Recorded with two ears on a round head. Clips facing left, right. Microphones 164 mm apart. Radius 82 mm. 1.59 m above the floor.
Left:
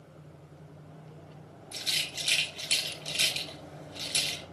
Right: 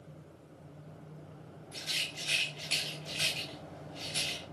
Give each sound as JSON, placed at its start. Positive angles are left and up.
{"t": 1.7, "sound": "a rattle", "side_deg": 50, "distance_m": 2.5}